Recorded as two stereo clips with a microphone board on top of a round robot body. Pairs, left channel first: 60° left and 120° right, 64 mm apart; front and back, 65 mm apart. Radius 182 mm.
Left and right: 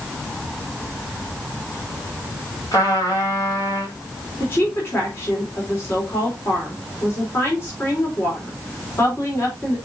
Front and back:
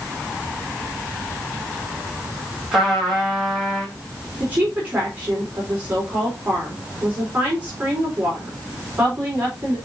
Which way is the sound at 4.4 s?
110° left.